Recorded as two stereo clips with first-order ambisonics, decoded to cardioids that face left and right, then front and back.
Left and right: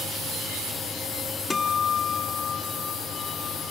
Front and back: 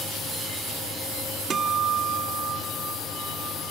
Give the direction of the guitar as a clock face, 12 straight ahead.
7 o'clock.